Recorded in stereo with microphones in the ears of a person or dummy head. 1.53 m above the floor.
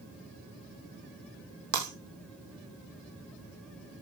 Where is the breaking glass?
60° right (ahead or behind), 3 m.